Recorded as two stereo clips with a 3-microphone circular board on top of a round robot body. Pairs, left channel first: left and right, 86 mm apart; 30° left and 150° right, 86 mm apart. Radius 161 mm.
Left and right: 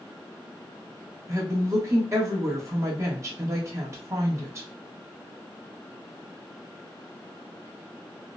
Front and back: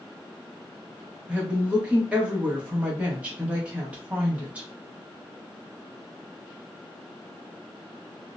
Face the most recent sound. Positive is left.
turn(degrees=-85)